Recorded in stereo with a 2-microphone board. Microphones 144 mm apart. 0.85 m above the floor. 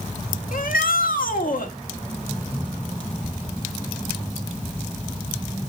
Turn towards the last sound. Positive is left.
turn(degrees=75)  # may be behind; listen again after turning